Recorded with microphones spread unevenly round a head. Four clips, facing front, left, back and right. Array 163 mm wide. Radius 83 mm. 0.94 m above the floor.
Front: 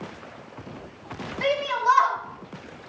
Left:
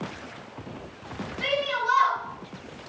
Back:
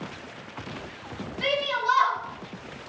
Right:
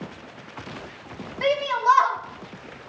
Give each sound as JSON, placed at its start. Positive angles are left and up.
{"t": 1.4, "sound": "a shout", "azimuth_deg": -65, "distance_m": 2.0}